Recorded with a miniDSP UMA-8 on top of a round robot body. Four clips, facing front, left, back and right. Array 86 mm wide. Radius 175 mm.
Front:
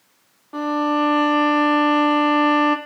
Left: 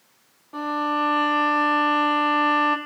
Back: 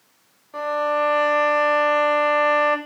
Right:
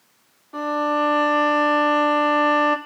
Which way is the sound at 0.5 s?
Straight ahead.